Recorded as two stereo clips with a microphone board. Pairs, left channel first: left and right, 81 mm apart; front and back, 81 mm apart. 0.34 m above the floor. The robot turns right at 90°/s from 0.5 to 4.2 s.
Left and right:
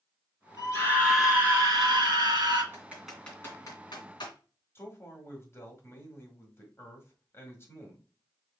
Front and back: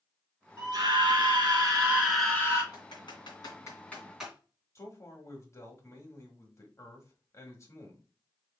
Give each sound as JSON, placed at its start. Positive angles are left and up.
{"t": 0.6, "sound": "a scream", "azimuth_deg": 130, "distance_m": 3.0}
{"t": 2.7, "sound": "typing on a keyboard", "azimuth_deg": -35, "distance_m": 2.5}
{"t": 4.8, "sound": "a man speaking", "azimuth_deg": 40, "distance_m": 1.6}